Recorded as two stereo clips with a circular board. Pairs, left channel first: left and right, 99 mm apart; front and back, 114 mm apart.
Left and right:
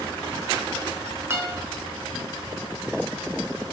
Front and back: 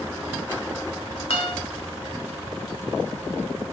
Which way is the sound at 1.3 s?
25° right.